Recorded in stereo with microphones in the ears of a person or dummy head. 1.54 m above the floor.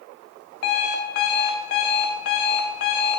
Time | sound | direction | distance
0.6 | an alarm clock | 35° left (ahead or behind) | 1.3 m